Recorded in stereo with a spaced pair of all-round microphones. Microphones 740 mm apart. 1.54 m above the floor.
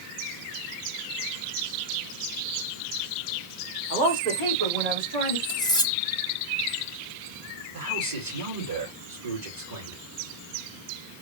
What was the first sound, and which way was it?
A woman speaking, 70° right (ahead or behind).